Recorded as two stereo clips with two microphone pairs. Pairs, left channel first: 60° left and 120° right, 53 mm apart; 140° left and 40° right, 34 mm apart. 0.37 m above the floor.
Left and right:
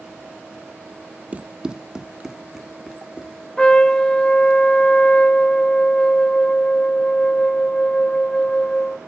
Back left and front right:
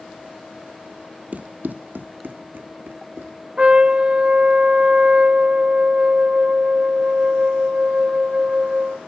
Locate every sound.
1.3 s running footsteps: 65° right, 0.5 m; by 3.5 s 35° right, 2 m
3.6 s a trumpet: 5° right, 0.6 m